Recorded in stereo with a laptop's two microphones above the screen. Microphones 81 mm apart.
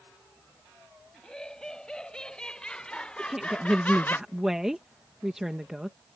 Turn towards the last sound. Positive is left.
turn(degrees=-5)  # may be behind; listen again after turning